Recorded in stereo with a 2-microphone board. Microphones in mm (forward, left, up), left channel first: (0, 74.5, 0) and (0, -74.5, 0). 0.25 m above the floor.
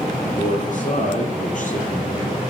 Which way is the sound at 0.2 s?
60° left (ahead or behind).